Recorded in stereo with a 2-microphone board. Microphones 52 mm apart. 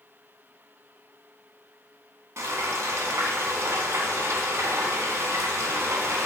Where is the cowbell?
I don't hear a cowbell.